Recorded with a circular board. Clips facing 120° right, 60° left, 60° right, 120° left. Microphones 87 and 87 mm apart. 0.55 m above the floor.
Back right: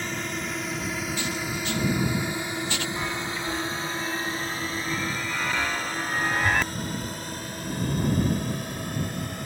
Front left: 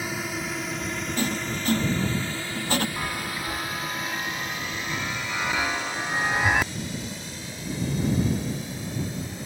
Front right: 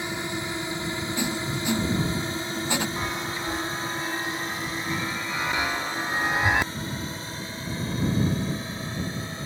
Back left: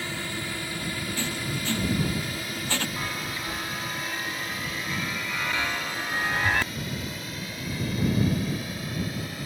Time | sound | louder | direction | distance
0.0 | a drone | front left 1 dB, front right 3 dB | 15° right | ?
1.2 | writing | front left 2 dB, front right 3 dB | 15° left | ?
3.0 | a chime | back right 1 dB, front right 3 dB | 10° right | ?